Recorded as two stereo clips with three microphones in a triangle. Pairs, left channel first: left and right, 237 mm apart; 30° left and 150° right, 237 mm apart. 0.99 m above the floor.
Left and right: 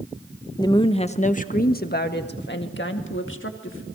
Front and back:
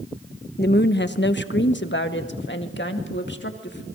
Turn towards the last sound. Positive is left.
turn(degrees=65)